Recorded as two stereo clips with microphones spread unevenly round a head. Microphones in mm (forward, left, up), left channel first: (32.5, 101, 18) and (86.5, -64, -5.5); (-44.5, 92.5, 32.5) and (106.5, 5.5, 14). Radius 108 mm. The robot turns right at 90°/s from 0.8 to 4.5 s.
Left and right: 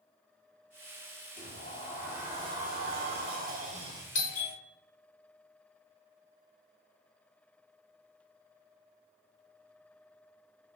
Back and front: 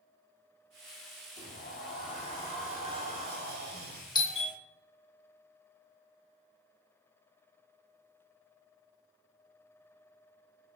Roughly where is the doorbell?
Left.